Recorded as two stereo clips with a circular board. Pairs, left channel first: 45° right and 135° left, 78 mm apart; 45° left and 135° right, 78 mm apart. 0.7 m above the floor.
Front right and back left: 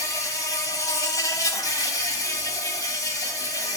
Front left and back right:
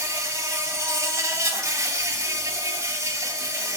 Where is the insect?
85° right, 1.7 m.